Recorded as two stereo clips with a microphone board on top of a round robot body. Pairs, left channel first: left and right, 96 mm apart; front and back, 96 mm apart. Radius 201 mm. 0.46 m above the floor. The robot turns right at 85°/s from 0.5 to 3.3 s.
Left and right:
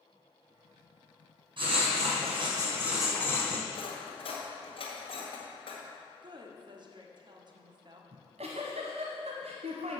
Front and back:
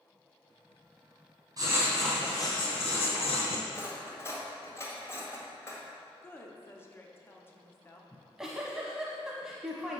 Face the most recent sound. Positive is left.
turn(degrees=-95)